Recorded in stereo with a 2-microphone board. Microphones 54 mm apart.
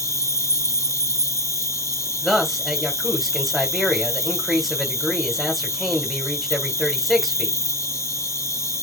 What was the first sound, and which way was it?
An insect, 60° left (ahead or behind).